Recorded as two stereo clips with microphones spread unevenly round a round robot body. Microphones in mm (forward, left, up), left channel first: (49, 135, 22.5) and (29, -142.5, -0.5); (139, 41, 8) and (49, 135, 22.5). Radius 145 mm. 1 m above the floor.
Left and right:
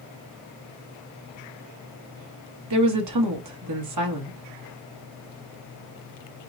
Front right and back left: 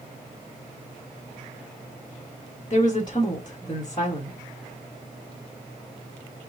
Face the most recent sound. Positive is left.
turn(degrees=-115)